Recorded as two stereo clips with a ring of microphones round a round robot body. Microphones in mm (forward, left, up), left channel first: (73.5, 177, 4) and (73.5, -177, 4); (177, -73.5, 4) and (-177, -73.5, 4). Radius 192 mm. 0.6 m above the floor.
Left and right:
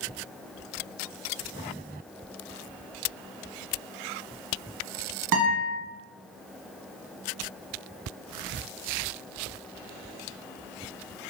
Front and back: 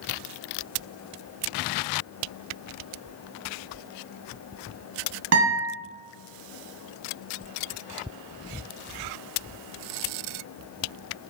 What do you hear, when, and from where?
5.3 s a guitar: 135° right, 1.1 m